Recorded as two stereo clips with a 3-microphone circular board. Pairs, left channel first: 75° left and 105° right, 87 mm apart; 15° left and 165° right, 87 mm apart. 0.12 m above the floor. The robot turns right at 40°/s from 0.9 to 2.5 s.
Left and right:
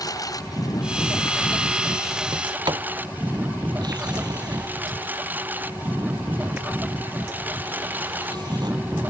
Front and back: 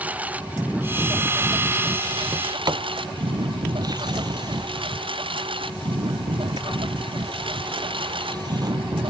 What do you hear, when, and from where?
0.0 s a lawn mower: 120° left; by 9.1 s 175° right
2.3 s a sliding door: 140° right; by 8.8 s 135° right